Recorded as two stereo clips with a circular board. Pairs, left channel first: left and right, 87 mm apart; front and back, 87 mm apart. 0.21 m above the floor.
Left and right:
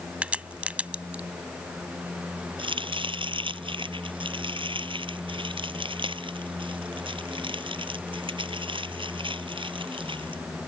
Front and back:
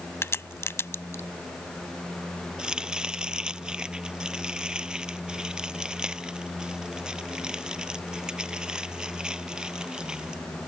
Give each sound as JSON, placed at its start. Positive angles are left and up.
{"t": 0.2, "sound": "a crack", "azimuth_deg": -25}
{"t": 2.6, "sound": "chopping", "azimuth_deg": -100}